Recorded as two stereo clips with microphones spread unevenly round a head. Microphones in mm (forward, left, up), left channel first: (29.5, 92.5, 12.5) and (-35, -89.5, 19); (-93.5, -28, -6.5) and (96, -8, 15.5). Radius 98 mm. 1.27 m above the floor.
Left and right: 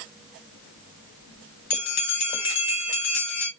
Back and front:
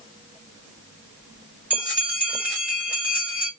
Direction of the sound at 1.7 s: 85° left.